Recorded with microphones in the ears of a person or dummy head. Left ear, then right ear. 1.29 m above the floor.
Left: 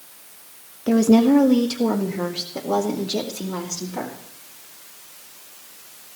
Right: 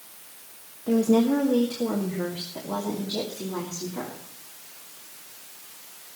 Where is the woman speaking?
80° left, 0.9 m; by 4.2 s 75° left (ahead or behind), 2.5 m.